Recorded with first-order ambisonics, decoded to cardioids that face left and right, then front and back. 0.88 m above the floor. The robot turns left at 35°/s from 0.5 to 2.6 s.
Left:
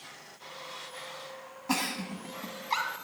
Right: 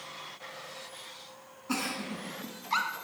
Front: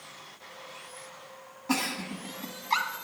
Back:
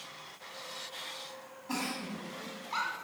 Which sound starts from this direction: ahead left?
A giggle, at 1.7 s.